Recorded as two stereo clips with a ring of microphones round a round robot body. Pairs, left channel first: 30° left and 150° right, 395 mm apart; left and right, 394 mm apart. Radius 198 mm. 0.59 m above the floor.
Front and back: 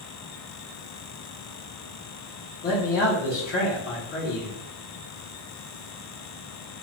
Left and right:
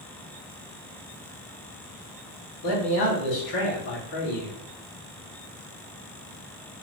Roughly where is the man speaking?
Left.